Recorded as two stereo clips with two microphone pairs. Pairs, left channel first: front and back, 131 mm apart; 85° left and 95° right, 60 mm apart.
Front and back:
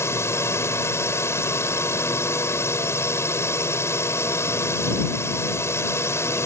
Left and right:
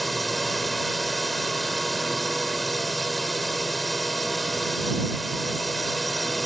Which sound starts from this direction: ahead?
A drone, at 0.0 s.